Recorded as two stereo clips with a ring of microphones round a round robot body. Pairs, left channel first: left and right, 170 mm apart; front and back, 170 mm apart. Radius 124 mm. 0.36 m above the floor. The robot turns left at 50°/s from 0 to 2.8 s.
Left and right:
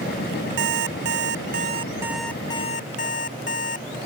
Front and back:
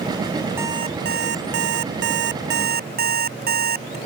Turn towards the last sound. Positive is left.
turn(degrees=150)